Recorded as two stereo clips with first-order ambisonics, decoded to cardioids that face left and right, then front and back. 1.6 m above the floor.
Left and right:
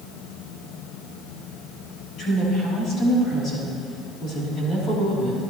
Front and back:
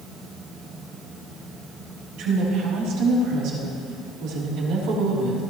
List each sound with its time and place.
2.2 s a woman speaking: 145° left, 4.5 m